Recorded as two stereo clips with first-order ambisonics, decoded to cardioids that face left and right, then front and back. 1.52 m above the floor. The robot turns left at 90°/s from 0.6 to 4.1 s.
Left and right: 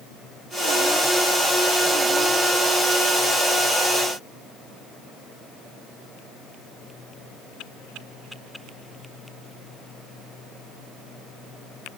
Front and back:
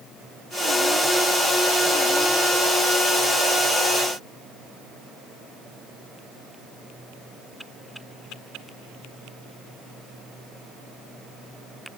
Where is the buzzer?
No buzzer in this recording.